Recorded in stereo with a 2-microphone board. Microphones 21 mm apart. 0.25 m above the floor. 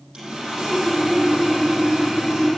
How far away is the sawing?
About 6.5 m.